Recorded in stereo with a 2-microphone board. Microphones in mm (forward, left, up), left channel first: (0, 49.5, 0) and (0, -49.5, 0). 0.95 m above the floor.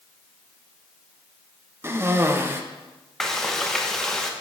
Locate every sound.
1.8 s a cough: 25° right (ahead or behind), 1.0 m
3.2 s frying: 5° left (ahead or behind), 1.0 m